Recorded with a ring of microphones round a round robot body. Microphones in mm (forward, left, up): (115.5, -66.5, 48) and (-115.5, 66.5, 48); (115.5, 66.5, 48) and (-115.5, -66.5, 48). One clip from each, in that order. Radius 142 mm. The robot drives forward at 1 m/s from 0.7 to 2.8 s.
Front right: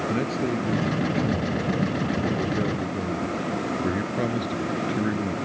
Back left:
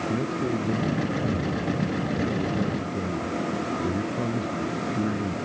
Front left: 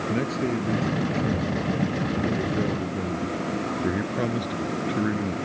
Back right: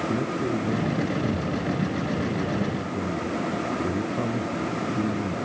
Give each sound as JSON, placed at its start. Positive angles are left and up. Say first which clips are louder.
{"t": 0.1, "sound": "a man speaking", "louder": "front right 1 dB, even", "azimuth_deg": 5}